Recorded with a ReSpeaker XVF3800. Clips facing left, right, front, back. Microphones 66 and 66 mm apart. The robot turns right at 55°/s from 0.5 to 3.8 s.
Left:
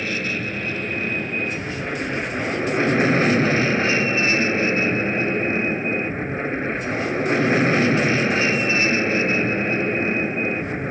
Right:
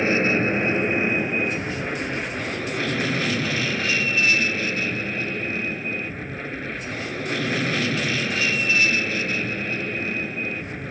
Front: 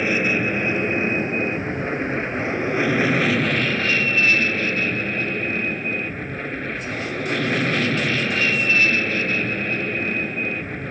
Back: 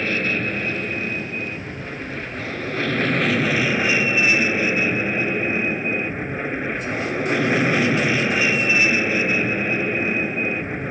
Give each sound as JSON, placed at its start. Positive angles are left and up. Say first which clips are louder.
{"t": 0.0, "sound": "an aircraft", "louder": "right 6 dB, front 2 dB", "azimuth_deg": -65}